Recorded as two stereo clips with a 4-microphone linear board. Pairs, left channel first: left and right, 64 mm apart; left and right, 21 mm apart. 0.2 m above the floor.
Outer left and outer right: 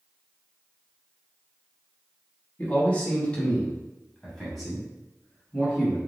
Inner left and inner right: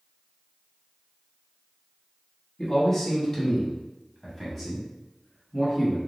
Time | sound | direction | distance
2.6 | a man speaking | 25° left (ahead or behind) | 1.2 m